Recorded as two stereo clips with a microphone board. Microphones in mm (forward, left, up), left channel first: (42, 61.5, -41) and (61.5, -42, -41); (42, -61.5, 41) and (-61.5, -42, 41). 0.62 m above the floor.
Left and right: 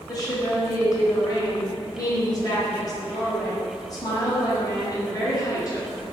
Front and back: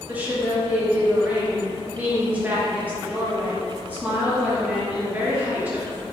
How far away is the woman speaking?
About 0.7 m.